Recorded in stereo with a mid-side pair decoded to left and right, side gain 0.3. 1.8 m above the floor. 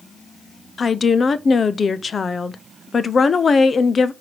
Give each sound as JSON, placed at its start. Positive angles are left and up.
{"t": 0.8, "sound": "a woman speaking", "azimuth_deg": 60, "distance_m": 0.9}